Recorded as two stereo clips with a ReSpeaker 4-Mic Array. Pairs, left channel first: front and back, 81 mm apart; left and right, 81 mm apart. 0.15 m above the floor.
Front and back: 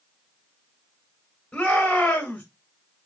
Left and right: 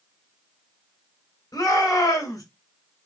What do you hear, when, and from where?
1.5 s a shout: 75° left, 2.5 m